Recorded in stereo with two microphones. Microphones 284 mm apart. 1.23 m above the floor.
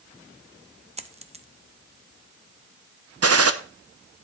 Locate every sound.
1.0 s a dropped coin: 25° right (ahead or behind), 0.6 m
3.2 s a gunshot: 60° right (ahead or behind), 0.7 m